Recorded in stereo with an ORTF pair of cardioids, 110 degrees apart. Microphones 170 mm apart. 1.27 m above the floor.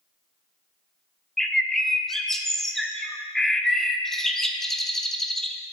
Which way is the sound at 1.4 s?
Straight ahead.